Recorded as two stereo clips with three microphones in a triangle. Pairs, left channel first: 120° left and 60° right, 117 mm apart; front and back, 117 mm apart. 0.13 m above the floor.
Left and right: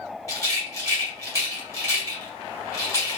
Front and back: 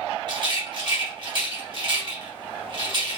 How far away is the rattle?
About 1.6 m.